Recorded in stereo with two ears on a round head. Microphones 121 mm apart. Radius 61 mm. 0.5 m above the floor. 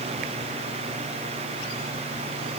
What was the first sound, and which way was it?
Only background noise.